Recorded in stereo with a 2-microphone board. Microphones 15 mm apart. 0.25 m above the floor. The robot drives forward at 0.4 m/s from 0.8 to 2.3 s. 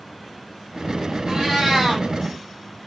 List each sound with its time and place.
1.3 s a cat meowing: 55° right (ahead or behind), 2.5 m; by 2.0 s 50° right (ahead or behind), 2.5 m